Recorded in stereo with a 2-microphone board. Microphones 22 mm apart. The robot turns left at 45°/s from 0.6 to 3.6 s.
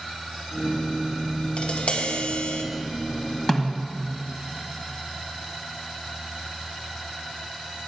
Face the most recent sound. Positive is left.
turn(degrees=10)  # may be behind; listen again after turning